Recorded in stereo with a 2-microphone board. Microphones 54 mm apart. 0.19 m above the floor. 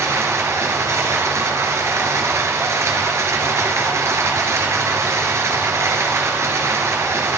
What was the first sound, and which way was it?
Running water, 60° right (ahead or behind).